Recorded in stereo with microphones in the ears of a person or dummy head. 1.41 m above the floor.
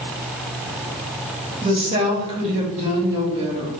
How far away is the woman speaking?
About 1.5 m.